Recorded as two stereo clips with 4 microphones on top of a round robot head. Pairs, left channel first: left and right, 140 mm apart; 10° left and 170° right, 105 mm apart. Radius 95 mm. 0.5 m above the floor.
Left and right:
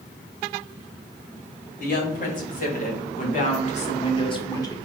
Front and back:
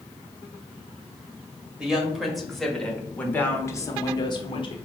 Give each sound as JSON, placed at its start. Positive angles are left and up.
{"t": 1.8, "sound": "a woman speaking", "azimuth_deg": 105, "distance_m": 2.0}